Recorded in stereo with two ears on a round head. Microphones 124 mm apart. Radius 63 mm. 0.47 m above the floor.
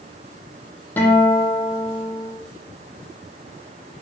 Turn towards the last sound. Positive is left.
turn(degrees=15)  # may be behind; listen again after turning